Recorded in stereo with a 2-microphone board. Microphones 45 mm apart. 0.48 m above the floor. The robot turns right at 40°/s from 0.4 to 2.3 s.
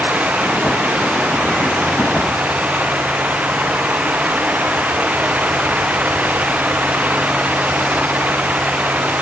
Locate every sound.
Only background noise.